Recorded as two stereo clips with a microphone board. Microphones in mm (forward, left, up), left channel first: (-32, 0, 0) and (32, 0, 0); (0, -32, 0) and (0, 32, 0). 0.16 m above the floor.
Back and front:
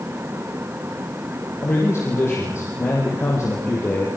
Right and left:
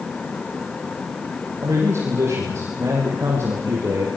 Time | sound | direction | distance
1.6 | a man speaking | 135° left | 7.5 m